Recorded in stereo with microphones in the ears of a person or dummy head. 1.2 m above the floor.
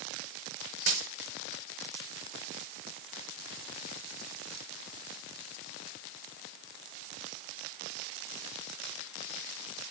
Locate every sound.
0.9 s a dropped coin: 45° right (ahead or behind), 3.5 m